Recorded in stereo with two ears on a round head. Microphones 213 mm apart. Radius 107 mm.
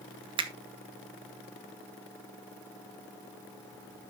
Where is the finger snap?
20° right (ahead or behind), 1.4 m.